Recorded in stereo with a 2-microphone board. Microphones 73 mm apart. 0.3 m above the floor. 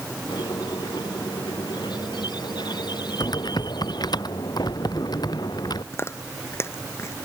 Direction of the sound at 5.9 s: 35° left (ahead or behind).